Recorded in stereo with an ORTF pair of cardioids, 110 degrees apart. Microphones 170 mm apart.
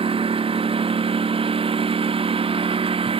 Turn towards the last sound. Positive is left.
turn(degrees=-30)